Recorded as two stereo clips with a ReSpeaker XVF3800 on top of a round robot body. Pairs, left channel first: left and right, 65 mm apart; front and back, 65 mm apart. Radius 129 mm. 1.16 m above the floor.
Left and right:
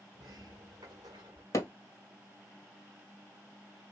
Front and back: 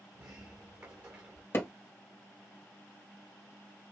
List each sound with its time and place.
0.1 s a sliding door: 125° right, 0.9 m
1.5 s hammering: 50° left, 2 m